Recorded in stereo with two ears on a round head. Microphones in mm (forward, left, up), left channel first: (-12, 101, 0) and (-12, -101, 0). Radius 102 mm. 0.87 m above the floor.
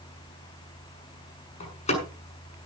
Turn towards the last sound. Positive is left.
turn(degrees=30)  # may be behind; listen again after turning